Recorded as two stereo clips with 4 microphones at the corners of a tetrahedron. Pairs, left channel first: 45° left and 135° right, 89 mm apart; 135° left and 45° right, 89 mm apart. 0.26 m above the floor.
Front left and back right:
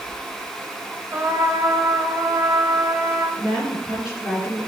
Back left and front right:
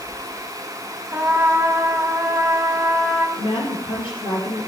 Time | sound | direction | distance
1.1 | a trumpet | 95° right | 1.4 m
3.4 | a woman speaking | 140° left | 5.5 m